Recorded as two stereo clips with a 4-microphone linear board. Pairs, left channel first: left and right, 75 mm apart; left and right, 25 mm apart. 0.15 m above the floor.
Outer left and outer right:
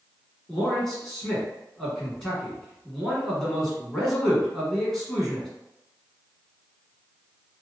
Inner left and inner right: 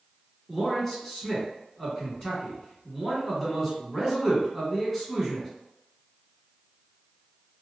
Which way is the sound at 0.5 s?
5° left (ahead or behind).